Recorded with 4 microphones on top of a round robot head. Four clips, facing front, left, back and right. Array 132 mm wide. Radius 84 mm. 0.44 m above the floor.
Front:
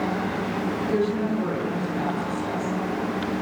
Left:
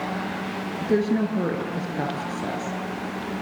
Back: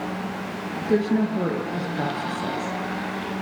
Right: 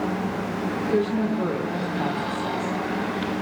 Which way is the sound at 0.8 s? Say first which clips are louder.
Left 2 dB, back 4 dB; 135° left.